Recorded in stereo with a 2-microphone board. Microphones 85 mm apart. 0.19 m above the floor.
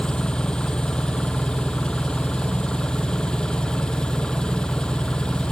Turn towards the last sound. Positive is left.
turn(degrees=10)  # may be behind; listen again after turning